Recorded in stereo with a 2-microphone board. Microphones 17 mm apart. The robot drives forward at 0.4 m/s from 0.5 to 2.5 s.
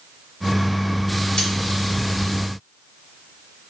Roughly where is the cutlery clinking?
Left.